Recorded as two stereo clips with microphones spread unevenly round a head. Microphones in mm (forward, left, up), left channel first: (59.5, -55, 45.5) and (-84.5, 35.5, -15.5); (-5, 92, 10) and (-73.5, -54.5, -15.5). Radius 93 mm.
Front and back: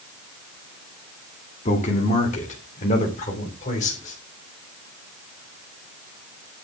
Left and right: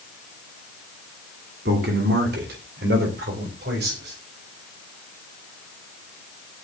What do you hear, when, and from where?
1.6 s a man speaking: 85° right, 2.5 m